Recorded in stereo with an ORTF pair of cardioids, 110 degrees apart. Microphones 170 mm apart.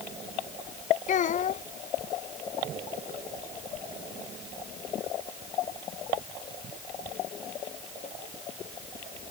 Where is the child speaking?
50° left.